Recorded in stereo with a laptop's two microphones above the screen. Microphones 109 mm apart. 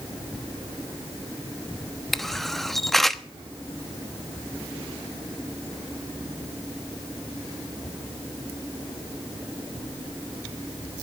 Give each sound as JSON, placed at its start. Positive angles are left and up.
{"t": 2.1, "sound": "a camera shutter", "side_deg": 0, "distance_m": 1.0}